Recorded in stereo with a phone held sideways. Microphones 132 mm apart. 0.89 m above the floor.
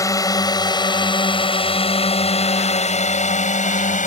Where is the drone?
25° left (ahead or behind); by 4.1 s 65° left (ahead or behind).